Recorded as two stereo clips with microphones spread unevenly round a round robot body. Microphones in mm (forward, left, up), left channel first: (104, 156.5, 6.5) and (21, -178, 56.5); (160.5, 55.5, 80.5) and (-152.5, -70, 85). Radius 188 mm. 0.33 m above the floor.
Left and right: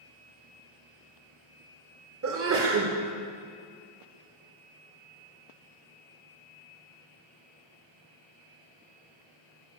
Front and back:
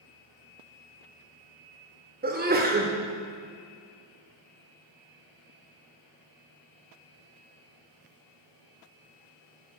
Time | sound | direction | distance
2.2 | a sneeze | 125° right | 1.2 m